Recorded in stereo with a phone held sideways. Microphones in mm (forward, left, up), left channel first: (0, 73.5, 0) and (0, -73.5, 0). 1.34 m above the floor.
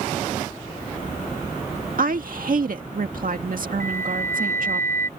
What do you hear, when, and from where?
2.0 s a woman speaking: 70° right (ahead or behind)
3.8 s a flute: 15° left (ahead or behind)